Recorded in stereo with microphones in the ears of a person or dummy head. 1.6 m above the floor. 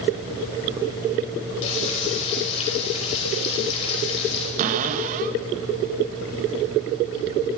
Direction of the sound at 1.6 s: 30° left (ahead or behind).